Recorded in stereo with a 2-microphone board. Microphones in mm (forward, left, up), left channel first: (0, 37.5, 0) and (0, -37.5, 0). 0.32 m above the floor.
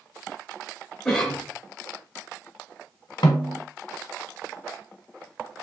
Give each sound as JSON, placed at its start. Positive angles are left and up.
{"t": 1.1, "sound": "a cough", "side_deg": 10, "distance_m": 0.9}
{"t": 3.2, "sound": "a snare drum", "side_deg": 75, "distance_m": 0.7}